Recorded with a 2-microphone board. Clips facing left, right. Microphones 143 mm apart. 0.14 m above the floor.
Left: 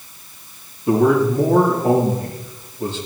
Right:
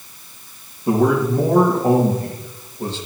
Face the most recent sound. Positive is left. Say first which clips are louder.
# left 2 dB
turn(degrees=-35)  # may be behind; listen again after turning